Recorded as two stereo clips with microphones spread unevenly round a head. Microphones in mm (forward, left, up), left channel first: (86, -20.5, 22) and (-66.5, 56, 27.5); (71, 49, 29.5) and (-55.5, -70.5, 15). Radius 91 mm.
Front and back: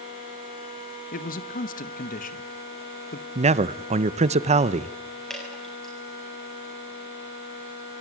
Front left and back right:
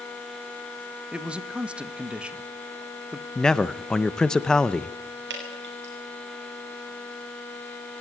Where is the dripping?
115° right, 7.5 m.